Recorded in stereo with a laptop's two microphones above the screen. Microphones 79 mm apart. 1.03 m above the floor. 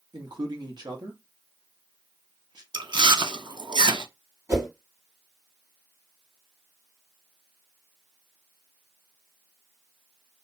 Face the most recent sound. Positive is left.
turn(degrees=-45)  # may be behind; listen again after turning